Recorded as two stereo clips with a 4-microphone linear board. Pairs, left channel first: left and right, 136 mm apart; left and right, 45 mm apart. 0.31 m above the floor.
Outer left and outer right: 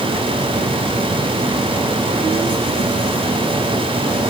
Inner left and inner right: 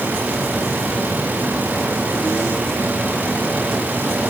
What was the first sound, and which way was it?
Only background noise.